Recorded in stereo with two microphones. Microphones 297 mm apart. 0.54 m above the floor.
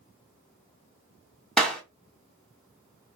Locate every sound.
1.6 s a clap: centre (ahead or behind), 1.3 m